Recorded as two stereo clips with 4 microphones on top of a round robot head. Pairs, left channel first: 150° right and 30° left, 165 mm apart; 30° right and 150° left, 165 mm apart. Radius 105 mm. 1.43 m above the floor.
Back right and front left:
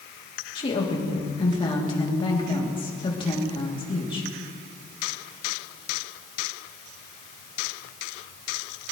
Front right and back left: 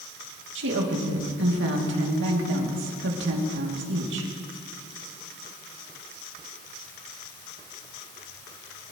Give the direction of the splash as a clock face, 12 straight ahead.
No splash in this recording.